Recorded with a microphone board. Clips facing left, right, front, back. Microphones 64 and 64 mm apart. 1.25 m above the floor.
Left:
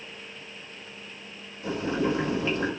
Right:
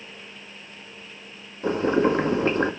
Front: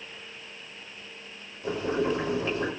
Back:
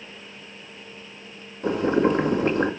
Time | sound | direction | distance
1.6 | boiling | 140° right | 2 m